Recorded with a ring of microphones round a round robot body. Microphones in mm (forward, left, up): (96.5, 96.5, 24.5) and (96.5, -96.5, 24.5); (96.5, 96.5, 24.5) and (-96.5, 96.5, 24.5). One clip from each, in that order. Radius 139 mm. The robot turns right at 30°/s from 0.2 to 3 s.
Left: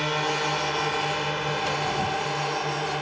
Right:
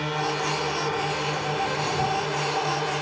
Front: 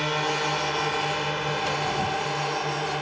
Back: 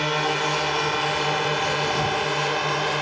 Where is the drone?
105° left; by 3.0 s 175° left.